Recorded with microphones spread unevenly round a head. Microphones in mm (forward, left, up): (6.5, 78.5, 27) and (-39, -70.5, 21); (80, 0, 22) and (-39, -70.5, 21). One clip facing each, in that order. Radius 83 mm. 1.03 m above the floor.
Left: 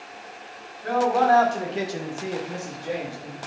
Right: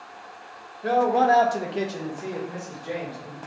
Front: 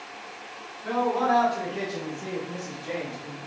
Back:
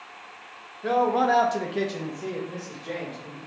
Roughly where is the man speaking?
Behind right.